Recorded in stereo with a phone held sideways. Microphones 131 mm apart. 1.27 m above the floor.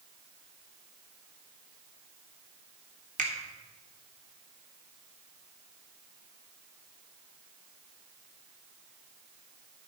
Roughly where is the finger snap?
Right.